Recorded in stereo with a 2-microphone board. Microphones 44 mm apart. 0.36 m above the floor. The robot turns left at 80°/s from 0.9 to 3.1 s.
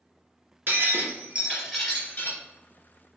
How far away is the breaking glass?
About 2 m.